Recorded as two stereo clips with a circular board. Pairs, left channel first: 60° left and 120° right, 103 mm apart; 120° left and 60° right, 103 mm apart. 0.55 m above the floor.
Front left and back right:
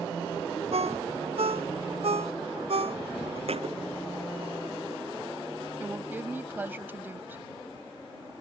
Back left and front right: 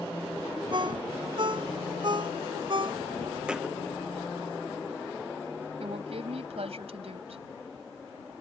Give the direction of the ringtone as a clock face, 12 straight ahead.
3 o'clock.